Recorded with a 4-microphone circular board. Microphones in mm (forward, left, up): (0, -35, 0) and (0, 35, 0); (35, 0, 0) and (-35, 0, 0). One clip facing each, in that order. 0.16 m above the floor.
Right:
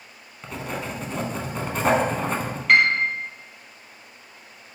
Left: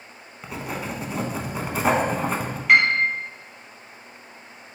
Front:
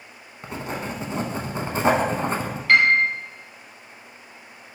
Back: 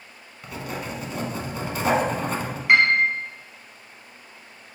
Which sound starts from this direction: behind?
A piano, at 2.7 s.